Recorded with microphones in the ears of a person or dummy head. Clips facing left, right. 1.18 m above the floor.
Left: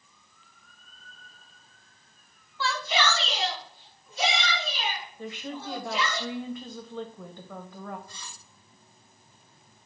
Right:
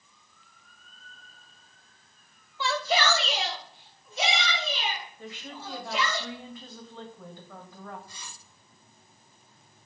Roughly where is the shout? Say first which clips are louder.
Right 1 dB; centre.